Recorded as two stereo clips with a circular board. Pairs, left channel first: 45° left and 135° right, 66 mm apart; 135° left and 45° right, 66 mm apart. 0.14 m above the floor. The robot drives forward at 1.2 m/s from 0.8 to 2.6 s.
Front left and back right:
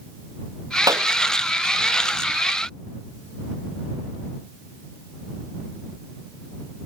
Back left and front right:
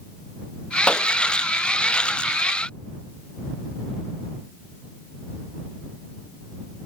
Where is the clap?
150° right.